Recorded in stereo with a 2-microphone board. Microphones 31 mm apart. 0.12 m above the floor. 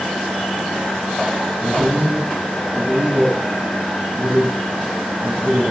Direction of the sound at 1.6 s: 65° right (ahead or behind).